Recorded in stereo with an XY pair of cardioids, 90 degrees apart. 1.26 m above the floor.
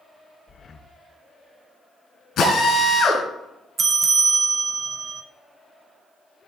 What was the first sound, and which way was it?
Breathing, 45° left.